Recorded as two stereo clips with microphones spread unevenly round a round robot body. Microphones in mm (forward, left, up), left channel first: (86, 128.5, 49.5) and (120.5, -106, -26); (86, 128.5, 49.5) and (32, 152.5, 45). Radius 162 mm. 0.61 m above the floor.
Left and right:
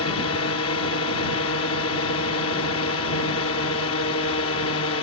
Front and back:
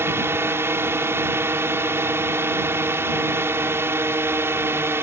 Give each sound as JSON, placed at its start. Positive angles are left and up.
{"t": 0.0, "sound": "a drone", "azimuth_deg": 135}